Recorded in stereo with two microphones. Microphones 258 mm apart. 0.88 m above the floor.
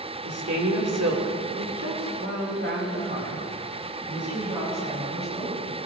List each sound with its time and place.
0.2 s a woman speaking: 65° right (ahead or behind), 2 m; by 5.8 s 20° right (ahead or behind), 6 m